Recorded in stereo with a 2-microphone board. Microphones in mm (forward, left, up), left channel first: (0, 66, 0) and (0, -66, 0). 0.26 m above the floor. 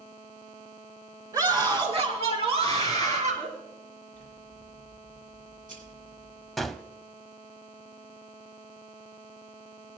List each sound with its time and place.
1.3 s a scream: 30° right (ahead or behind), 3 m; by 3.5 s 60° right (ahead or behind), 4 m
4.1 s scissors: 75° right (ahead or behind), 4 m
6.6 s a gunshot: centre (ahead or behind), 0.5 m